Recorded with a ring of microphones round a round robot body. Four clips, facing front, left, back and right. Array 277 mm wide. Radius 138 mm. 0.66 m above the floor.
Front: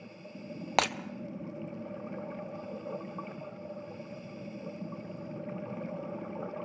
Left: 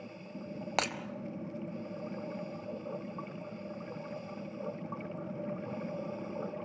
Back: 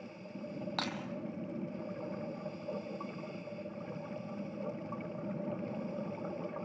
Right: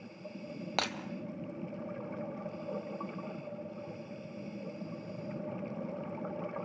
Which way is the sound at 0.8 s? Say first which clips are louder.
Left 2 dB, front 12 dB; 5° left.